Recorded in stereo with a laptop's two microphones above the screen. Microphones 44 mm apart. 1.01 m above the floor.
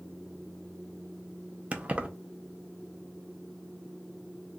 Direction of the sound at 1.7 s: 30° right (ahead or behind).